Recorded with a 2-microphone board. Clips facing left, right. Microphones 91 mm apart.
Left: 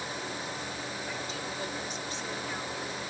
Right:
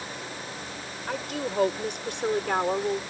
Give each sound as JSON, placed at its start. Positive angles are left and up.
{"t": 1.1, "sound": "a woman speaking", "side_deg": -60}